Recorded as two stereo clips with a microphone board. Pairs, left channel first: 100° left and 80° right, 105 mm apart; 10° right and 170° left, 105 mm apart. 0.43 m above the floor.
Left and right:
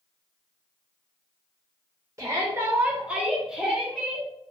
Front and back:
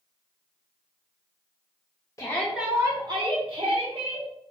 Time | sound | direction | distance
2.2 | a shout | 50° right | 0.8 m